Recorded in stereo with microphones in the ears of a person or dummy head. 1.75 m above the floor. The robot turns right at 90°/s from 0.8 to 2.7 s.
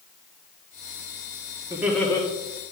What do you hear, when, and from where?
1.7 s laughter: 20° right, 1.8 m; by 2.2 s 30° left, 1.8 m